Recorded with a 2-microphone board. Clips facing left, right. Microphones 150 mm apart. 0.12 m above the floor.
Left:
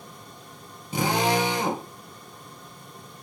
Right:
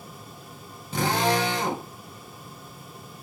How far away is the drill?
About 1.4 m.